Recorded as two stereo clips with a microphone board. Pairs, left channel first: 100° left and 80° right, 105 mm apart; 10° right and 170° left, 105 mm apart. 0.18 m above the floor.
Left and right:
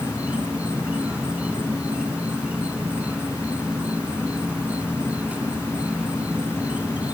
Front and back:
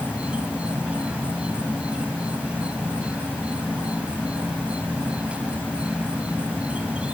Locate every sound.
0.0 s an insect: 130° right, 1.4 m